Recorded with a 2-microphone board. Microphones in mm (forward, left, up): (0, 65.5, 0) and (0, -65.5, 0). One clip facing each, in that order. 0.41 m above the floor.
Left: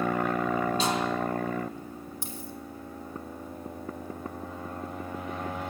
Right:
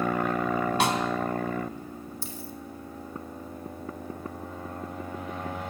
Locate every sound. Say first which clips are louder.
0.8 s a snare drum: right 2 dB; 70° right (ahead or behind), 3 m
2.2 s a dropped coin: even; 15° left (ahead or behind), 3.5 m